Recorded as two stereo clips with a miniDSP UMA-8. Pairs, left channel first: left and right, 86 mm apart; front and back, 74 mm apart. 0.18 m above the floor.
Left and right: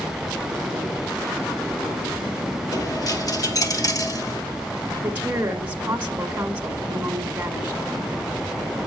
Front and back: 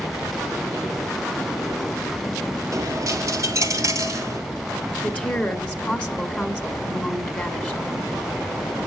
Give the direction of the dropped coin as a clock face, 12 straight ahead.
7 o'clock.